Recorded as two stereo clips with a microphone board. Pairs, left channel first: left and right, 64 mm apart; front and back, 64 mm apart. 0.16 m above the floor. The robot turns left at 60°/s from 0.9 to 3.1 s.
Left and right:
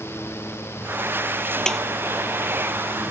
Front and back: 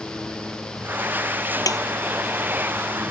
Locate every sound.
1.7 s a snare drum: 10° left; by 1.8 s straight ahead